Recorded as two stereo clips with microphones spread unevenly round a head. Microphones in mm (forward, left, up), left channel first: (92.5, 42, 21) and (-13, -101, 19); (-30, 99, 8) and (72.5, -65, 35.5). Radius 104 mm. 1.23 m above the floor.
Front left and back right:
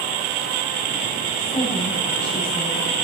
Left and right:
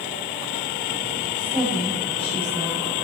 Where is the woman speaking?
5° left, 6.5 m.